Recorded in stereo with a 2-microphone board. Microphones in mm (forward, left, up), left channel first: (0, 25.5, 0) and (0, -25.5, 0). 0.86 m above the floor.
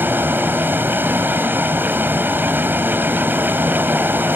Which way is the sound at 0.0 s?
45° right (ahead or behind).